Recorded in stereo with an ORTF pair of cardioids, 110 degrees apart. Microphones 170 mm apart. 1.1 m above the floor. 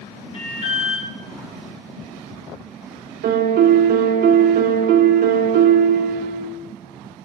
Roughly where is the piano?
Ahead right.